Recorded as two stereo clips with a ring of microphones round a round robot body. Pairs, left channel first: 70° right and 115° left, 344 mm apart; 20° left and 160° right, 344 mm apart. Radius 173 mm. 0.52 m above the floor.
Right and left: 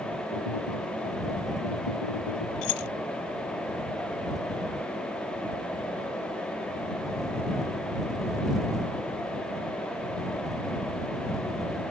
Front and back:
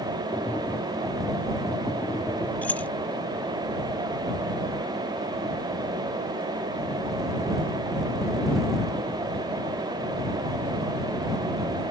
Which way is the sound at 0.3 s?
65° right.